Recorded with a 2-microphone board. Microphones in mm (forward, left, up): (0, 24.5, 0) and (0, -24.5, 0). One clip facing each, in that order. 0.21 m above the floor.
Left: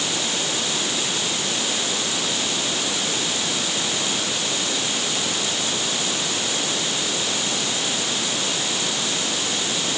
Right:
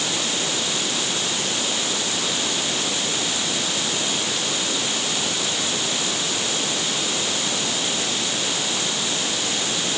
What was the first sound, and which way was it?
Only background noise.